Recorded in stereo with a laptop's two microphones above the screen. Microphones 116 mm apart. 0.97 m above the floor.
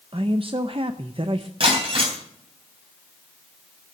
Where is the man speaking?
50° right (ahead or behind), 0.6 m.